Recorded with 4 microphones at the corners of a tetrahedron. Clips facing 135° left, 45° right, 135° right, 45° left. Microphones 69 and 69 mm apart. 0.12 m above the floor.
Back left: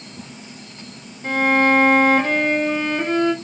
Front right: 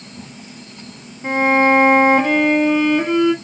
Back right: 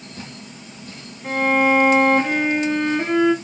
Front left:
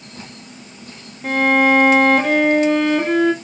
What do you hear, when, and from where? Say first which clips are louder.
1.2 s a violin: front right 3 dB, front left 3 dB; 30° left, 0.9 m